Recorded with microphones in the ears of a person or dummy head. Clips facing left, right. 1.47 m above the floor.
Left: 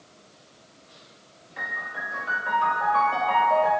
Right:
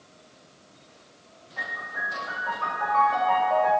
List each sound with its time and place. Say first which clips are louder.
1.6 s a piano: even; 20° left (ahead or behind), 1.1 m